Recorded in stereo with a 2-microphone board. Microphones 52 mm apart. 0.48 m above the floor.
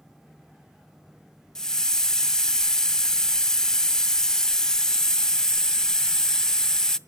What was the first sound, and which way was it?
A hiss, 10° left (ahead or behind).